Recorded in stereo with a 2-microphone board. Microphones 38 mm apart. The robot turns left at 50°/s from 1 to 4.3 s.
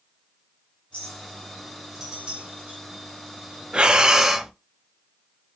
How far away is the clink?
About 3 m.